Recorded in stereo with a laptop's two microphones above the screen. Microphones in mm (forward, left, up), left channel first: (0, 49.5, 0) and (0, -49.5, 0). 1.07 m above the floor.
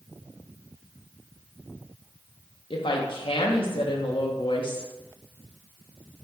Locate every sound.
2.7 s a woman speaking: 60° left (ahead or behind), 0.5 m